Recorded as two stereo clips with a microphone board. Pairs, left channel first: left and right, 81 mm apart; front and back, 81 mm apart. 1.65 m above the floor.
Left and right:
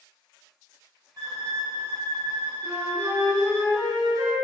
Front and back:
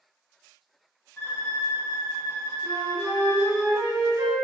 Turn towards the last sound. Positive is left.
turn(degrees=180)